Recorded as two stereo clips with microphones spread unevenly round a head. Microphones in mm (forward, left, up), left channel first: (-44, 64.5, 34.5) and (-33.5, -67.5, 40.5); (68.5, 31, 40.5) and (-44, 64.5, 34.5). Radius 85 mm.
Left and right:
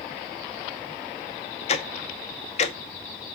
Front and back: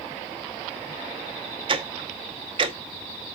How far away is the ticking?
About 1.0 m.